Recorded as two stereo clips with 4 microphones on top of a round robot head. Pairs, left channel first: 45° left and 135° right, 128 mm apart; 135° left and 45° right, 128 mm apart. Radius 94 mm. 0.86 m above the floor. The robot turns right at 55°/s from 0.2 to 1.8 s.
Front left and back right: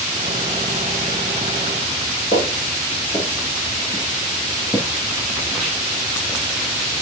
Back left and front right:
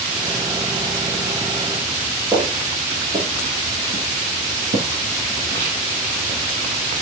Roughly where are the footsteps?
Ahead left.